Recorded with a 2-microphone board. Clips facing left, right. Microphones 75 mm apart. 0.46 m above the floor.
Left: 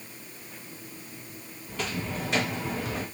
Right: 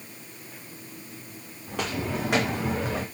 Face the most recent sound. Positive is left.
turn(degrees=-35)  # may be behind; listen again after turning